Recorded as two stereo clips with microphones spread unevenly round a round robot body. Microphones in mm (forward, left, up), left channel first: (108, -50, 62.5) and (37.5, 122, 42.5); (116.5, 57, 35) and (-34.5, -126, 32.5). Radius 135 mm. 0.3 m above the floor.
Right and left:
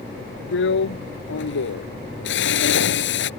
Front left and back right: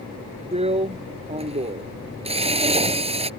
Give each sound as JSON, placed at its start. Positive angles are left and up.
{"t": 0.5, "sound": "a drill", "azimuth_deg": -65}